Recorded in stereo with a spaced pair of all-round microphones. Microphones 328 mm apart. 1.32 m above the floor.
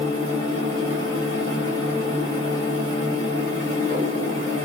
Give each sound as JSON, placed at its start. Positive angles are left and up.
{"t": 0.0, "sound": "a machine running", "side_deg": -40, "distance_m": 1.2}